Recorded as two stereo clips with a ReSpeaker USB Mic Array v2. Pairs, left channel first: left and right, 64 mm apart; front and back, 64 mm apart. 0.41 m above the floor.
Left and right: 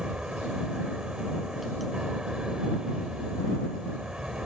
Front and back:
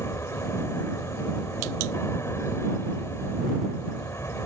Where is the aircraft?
15° right.